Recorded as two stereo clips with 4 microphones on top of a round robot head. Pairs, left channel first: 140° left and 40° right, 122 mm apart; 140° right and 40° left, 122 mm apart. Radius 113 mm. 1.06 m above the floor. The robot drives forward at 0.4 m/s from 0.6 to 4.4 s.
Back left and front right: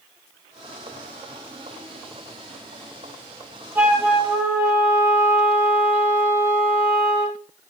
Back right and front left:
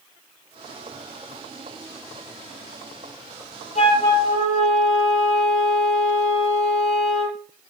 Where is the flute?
115° right, 9 m.